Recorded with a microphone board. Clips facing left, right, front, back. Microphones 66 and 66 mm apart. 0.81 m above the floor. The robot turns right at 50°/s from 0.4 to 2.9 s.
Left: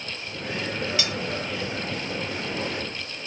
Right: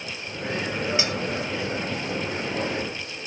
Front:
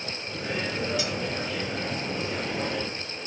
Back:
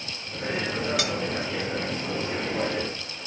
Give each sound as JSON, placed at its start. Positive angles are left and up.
{"t": 1.0, "sound": "cutlery clinking", "azimuth_deg": -155, "distance_m": 0.8}